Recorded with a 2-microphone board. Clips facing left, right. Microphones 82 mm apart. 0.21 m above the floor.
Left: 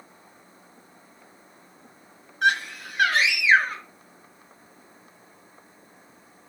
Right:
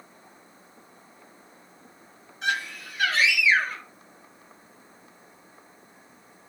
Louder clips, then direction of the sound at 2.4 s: Left 6 dB; 60° left (ahead or behind).